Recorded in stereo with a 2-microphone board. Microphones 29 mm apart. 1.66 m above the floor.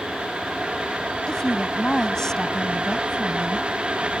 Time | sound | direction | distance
1.3 | a woman speaking | 25° left (ahead or behind) | ?